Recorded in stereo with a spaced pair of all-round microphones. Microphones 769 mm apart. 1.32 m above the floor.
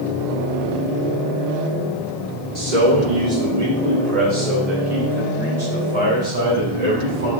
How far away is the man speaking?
About 2 m.